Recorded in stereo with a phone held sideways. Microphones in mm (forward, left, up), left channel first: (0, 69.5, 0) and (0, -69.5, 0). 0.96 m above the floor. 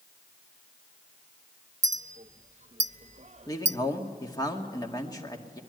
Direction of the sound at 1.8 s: 50° right (ahead or behind).